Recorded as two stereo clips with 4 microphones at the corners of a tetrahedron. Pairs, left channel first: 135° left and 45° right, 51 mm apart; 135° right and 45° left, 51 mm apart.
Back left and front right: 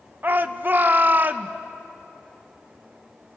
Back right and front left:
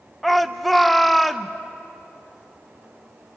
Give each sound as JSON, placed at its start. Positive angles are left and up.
{"t": 0.2, "sound": "a shout", "azimuth_deg": -45, "distance_m": 0.9}